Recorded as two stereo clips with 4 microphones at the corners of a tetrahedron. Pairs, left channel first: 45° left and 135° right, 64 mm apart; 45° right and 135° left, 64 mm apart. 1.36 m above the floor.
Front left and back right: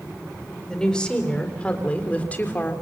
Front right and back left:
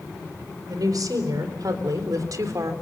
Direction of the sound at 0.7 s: 125° left.